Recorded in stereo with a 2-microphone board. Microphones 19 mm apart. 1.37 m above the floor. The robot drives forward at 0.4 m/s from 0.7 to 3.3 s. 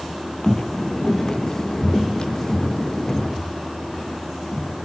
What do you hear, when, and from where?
0.4 s footsteps: 35° left (ahead or behind), 1.8 m; by 4.8 s 55° left (ahead or behind), 4.5 m